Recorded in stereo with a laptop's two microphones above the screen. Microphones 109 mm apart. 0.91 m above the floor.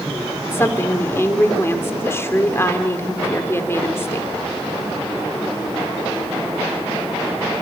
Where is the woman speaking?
20° left (ahead or behind), 3 m.